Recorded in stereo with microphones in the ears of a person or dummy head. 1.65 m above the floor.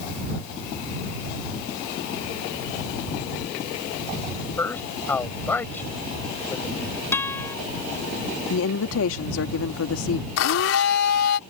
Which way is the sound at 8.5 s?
80° left.